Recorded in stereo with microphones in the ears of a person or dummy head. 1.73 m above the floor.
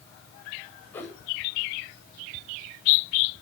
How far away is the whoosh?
About 9.5 m.